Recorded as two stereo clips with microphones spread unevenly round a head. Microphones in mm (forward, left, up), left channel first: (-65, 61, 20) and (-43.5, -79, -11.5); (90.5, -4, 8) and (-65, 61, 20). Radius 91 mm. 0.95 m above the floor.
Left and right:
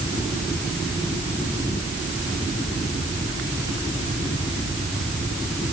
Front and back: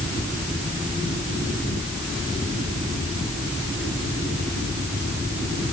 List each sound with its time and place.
Only background noise.